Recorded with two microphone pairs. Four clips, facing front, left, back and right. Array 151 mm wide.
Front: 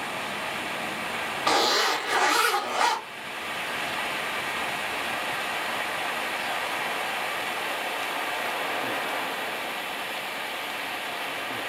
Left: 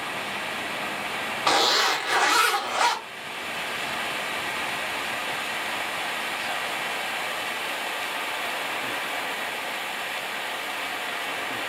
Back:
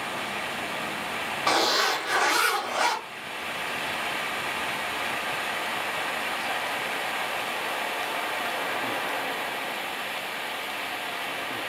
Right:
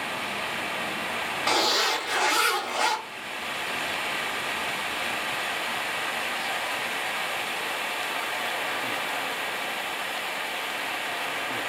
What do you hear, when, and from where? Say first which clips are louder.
1.5 s a zipper: left 3 dB, front 1 dB; 100° left, 1.6 m